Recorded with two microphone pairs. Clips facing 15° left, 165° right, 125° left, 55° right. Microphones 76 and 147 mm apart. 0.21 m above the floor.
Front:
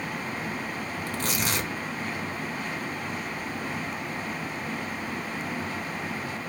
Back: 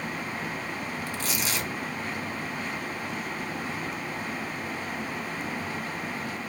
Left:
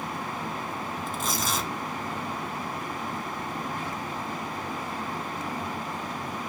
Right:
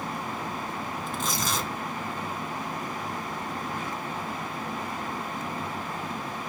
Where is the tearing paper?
40° left, 0.7 m.